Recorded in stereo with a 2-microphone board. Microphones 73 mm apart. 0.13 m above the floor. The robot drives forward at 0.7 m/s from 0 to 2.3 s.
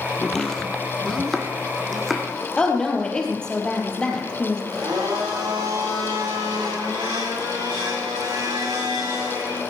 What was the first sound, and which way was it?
Chopping, 10° left (ahead or behind).